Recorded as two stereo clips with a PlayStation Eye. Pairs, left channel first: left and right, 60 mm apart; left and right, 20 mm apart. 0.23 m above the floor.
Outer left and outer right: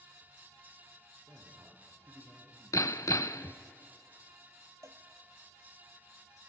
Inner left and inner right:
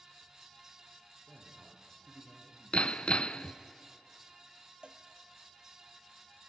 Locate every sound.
1.3 s a man speaking: 55° right (ahead or behind), 7 m
2.7 s hammering: 65° left (ahead or behind), 0.6 m
4.8 s a cowbell: 55° right (ahead or behind), 1.0 m